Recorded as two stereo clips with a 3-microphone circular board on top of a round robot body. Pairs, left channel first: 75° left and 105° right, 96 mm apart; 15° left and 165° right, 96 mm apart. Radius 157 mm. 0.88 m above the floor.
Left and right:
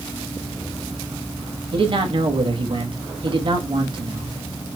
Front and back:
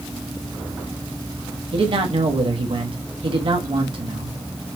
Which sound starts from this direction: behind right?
A man speaking, at 1.7 s.